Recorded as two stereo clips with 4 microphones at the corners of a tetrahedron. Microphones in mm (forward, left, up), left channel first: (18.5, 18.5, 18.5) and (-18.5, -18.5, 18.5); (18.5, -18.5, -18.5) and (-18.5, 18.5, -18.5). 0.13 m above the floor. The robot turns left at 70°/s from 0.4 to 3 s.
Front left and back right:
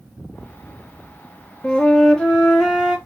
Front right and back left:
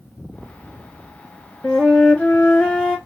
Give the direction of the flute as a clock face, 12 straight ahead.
12 o'clock.